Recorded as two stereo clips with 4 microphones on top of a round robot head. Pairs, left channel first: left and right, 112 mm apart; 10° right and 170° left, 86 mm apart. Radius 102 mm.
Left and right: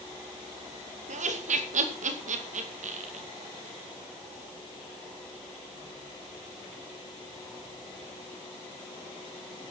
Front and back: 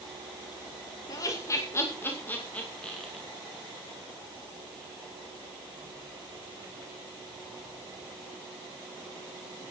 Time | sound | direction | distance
1.1 | laughter | 70° right | 2.5 m